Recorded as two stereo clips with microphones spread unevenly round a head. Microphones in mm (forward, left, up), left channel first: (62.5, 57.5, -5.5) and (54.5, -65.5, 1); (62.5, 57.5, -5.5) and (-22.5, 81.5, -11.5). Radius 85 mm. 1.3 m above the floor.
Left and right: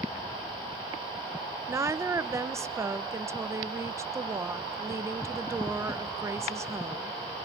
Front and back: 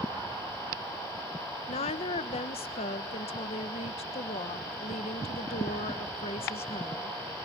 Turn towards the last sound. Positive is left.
turn(degrees=-25)